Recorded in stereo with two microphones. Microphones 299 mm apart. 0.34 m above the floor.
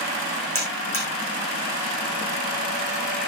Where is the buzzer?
45° right (ahead or behind), 5.5 m.